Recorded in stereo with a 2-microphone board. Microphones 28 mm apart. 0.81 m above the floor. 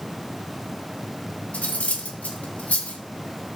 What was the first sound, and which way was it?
Cutlery clinking, 55° left (ahead or behind).